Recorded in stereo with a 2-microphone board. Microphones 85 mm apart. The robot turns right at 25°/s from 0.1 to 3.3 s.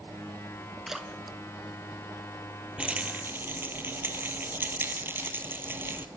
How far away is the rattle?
About 1.2 m.